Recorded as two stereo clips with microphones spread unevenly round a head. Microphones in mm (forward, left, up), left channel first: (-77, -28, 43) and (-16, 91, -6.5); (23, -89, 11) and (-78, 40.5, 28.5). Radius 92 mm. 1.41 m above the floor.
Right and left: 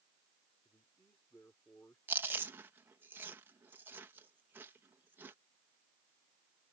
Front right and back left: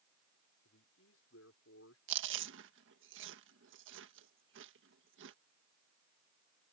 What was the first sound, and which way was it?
A man speaking, 40° right.